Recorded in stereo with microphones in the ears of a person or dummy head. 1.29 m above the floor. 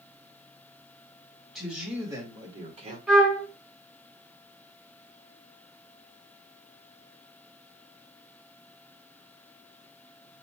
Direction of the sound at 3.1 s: Centre (ahead or behind).